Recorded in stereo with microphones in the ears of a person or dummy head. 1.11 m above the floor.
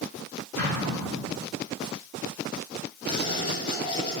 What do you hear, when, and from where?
0.6 s an explosion: 70° left (ahead or behind), 2.5 m
3.1 s writing: 35° left (ahead or behind), 2.5 m